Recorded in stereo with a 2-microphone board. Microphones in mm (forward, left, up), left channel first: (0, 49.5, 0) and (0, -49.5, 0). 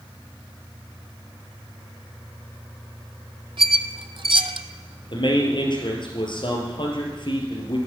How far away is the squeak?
About 0.5 m.